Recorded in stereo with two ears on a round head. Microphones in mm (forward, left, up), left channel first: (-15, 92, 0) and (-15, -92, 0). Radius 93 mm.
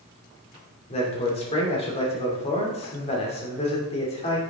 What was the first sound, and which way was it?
A man speaking, 30° left (ahead or behind).